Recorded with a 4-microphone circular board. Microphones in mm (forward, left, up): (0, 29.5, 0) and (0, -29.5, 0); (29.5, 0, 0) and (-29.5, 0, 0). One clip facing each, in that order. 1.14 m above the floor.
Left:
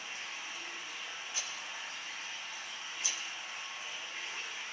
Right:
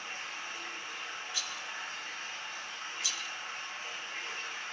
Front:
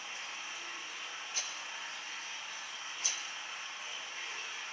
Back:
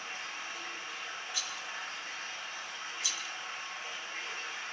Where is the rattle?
40° left, 0.6 m.